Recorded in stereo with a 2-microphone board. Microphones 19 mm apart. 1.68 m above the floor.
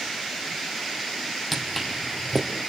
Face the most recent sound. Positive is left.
turn(degrees=5)  # may be behind; listen again after turning